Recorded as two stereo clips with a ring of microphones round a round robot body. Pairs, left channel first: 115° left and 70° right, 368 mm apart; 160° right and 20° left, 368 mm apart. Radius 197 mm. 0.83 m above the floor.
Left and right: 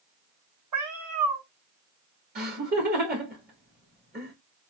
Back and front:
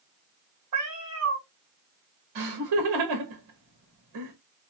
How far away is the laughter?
About 2 m.